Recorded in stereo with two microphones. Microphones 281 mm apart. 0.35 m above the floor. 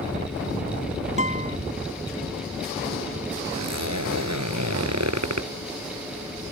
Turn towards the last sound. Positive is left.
turn(degrees=-70)  # may be behind; listen again after turning